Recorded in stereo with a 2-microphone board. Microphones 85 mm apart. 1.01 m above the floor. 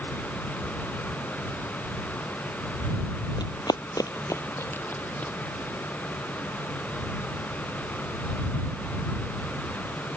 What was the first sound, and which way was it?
Running footsteps, 60° left (ahead or behind).